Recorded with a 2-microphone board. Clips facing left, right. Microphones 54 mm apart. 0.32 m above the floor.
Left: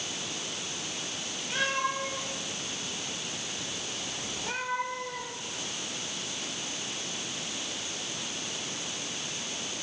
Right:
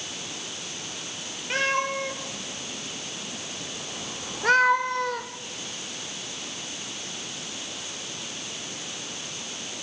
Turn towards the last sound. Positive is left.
turn(degrees=-70)  # may be behind; listen again after turning